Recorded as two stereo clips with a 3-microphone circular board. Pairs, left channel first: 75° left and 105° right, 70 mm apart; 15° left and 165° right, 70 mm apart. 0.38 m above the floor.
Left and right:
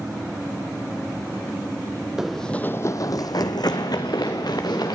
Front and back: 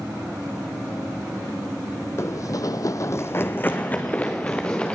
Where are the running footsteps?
25° right, 0.7 m; by 5.0 s 90° left, 2 m.